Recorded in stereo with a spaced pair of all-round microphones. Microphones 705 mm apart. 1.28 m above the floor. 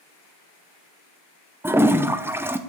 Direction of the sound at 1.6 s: 5° right (ahead or behind).